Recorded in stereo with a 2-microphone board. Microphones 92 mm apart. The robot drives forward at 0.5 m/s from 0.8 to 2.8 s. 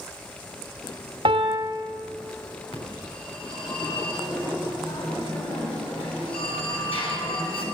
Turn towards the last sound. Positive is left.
turn(degrees=80)